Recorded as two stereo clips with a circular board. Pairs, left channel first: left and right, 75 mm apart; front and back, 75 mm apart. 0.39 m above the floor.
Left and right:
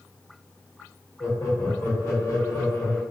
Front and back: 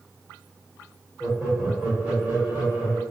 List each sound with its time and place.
1.2 s laughter: 100° left, 1.4 m; by 3.0 s 130° left, 2.0 m